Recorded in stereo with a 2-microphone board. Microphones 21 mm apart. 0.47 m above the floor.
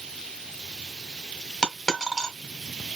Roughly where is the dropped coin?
Left.